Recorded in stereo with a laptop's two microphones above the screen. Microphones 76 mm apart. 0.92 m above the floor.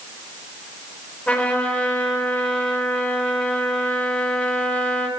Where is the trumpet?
20° left (ahead or behind), 4 m.